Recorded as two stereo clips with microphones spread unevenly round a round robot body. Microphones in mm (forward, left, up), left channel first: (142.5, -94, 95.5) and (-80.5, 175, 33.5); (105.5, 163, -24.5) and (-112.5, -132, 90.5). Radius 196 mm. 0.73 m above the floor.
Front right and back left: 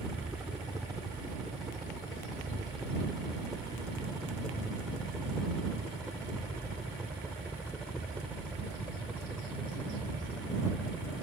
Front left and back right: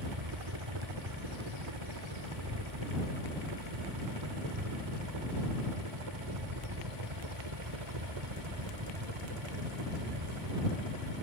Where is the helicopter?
145° right; by 11.2 s 140° right.